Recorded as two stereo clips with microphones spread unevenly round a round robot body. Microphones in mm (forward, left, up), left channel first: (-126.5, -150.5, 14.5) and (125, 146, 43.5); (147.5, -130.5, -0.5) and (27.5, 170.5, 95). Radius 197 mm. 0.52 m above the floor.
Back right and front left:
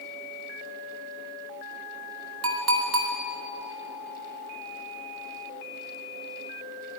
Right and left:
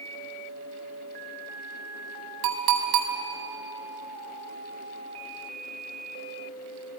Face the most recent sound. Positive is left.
turn(degrees=100)